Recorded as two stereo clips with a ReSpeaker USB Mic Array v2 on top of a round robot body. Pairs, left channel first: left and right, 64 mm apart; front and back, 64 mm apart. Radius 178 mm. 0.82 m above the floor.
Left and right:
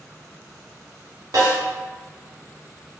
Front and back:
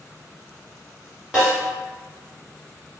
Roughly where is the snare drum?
Right.